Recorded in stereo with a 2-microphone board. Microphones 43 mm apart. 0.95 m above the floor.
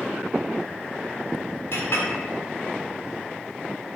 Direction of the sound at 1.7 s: 55° left (ahead or behind).